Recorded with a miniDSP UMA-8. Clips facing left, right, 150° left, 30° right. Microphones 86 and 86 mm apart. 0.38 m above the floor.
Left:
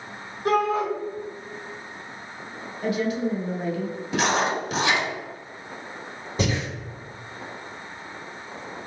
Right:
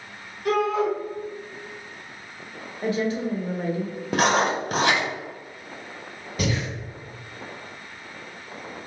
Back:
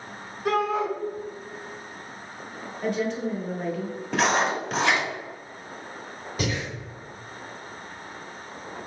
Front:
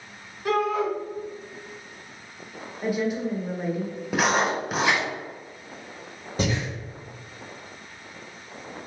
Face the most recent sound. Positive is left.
turn(degrees=30)